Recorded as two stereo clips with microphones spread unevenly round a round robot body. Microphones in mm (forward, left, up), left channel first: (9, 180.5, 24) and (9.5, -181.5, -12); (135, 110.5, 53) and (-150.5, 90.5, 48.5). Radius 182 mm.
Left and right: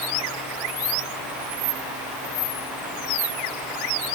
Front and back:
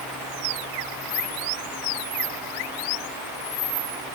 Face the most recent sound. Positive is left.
No sound to turn to.